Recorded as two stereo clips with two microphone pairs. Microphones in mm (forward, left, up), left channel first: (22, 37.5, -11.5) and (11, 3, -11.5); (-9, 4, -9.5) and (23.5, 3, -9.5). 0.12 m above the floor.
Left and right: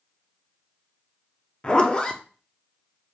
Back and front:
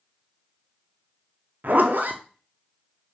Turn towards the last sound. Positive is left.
turn(degrees=5)